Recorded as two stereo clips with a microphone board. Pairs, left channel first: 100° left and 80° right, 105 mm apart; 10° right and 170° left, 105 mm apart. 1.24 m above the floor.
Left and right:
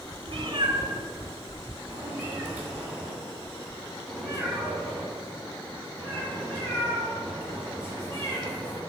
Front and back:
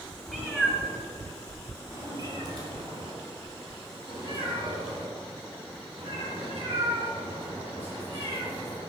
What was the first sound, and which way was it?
A cat meowing, 105° right.